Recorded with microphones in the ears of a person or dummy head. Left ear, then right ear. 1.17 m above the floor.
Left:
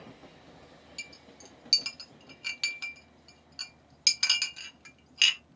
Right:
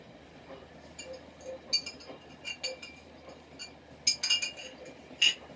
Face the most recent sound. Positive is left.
turn(degrees=65)  # may be behind; listen again after turning